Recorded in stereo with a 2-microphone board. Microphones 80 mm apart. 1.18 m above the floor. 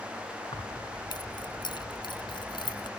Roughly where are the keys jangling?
Left.